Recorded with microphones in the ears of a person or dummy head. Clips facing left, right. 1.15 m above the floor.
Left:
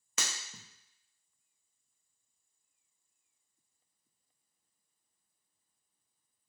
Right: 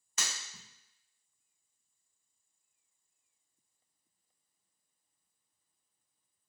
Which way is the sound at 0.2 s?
60° left (ahead or behind).